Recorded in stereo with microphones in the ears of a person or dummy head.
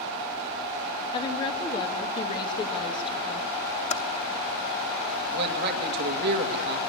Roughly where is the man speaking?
Right.